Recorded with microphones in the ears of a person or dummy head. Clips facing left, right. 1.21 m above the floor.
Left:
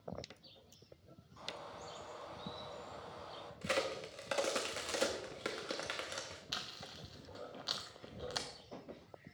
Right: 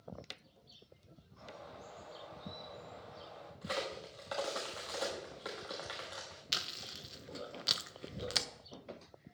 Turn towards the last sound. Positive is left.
turn(degrees=-30)  # may be behind; listen again after turning